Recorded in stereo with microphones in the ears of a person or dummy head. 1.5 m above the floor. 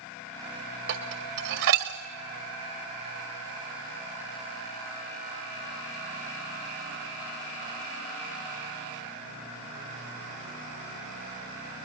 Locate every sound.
0.9 s dishes clattering: 65° right (ahead or behind), 1.9 m